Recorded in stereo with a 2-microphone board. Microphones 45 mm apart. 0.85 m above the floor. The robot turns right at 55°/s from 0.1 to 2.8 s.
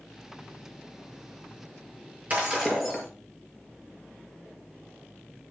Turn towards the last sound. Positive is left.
turn(degrees=-5)  # may be behind; listen again after turning